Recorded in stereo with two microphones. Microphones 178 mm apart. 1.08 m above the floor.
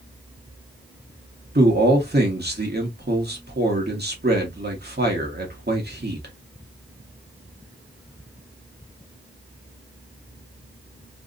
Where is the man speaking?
65° right (ahead or behind), 1.4 m.